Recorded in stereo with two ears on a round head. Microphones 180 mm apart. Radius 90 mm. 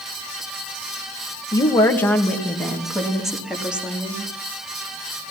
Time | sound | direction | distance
1.5 | a woman speaking | 20° left (ahead or behind) | 2.0 m